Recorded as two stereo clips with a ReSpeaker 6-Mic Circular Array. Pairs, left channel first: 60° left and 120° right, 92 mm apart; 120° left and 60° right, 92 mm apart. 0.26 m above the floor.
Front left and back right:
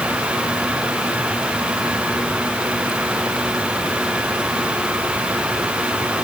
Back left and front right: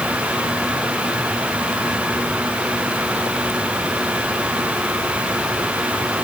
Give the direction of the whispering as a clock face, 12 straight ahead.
I don't hear whispering.